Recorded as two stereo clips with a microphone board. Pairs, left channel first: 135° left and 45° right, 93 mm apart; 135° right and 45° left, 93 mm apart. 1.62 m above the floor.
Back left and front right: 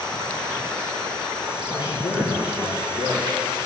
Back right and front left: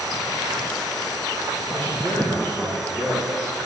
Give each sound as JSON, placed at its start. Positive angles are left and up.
{"t": 1.7, "sound": "a man speaking", "azimuth_deg": 160, "distance_m": 1.6}